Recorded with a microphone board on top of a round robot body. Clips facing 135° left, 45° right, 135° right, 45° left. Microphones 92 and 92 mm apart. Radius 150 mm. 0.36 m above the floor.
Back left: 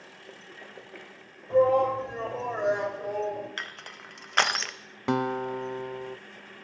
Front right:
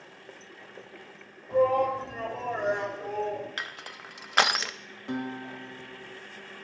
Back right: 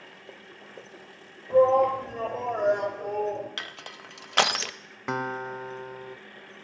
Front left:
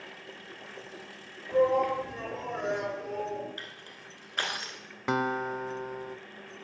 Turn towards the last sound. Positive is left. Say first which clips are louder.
# back left 7 dB, front left 2 dB
turn(degrees=135)